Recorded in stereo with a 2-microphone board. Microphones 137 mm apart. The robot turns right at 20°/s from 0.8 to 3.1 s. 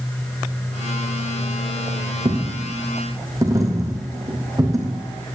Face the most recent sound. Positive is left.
turn(degrees=-25)  # may be behind; listen again after turning